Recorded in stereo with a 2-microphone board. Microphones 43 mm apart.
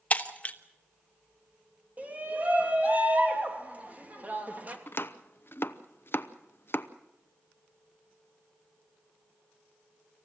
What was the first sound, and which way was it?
Breaking glass, 30° left (ahead or behind).